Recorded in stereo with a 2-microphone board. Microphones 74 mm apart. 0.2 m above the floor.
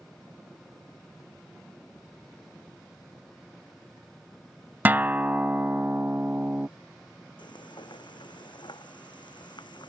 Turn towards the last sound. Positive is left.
turn(degrees=85)